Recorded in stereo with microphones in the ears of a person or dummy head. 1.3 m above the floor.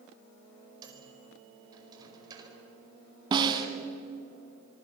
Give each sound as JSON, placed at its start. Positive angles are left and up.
{"t": 0.8, "sound": "a microwave", "side_deg": -20, "distance_m": 5.0}
{"t": 3.3, "sound": "a snare drum", "side_deg": -25, "distance_m": 2.5}